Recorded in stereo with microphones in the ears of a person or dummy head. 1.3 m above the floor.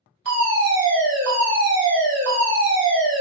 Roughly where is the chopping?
No chopping in this recording.